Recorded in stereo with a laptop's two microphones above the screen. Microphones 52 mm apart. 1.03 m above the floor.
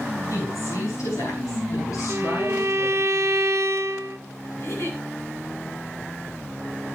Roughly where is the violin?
Right.